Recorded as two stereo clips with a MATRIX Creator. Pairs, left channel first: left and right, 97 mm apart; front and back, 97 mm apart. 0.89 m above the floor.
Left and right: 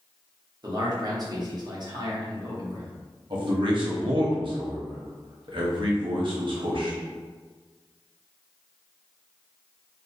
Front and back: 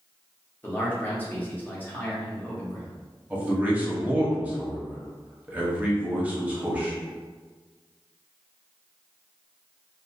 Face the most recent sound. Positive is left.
turn(degrees=-110)